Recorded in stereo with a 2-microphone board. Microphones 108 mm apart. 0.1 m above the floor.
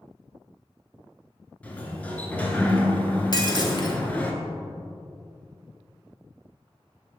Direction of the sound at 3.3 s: 45° left (ahead or behind).